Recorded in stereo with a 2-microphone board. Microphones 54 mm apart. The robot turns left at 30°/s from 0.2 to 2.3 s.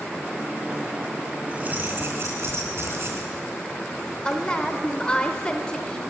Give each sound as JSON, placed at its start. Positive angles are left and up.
{"t": 1.5, "sound": "keys jangling", "side_deg": -30, "distance_m": 3.0}
{"t": 4.2, "sound": "a woman speaking", "side_deg": 20, "distance_m": 0.8}